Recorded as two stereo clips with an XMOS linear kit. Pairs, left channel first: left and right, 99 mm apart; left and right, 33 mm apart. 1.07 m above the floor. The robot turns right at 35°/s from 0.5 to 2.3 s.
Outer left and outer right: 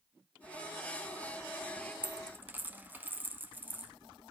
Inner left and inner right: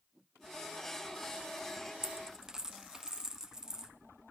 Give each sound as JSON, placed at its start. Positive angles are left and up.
{"t": 2.0, "sound": "a dropped coin", "side_deg": -15, "distance_m": 0.8}